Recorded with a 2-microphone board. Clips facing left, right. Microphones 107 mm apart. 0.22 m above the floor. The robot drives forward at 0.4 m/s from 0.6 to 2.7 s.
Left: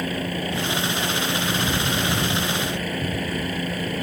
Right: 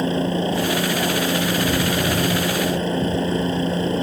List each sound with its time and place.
0.0 s a helicopter: 25° right (ahead or behind)